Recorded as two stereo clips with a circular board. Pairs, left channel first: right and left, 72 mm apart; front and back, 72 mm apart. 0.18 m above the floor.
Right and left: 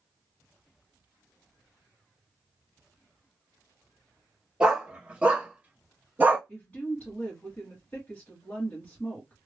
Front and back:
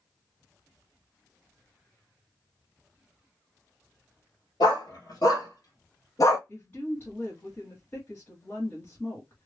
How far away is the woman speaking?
About 1.6 m.